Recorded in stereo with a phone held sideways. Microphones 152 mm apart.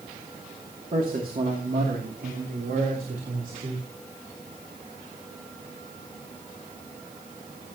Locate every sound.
0.9 s a man speaking: 65° right (ahead or behind), 2.5 m; by 3.9 s 70° right (ahead or behind), 4.5 m